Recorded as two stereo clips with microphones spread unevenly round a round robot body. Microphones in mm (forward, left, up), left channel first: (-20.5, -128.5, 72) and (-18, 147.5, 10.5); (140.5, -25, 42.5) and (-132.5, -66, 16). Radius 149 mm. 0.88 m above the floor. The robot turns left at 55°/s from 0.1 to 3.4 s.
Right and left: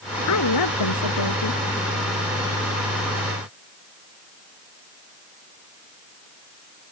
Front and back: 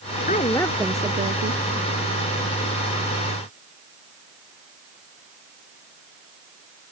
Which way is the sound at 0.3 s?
55° right.